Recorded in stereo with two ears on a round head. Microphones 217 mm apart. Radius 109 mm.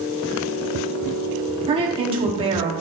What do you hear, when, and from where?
1.7 s a woman speaking: 20° right (ahead or behind), 1.0 m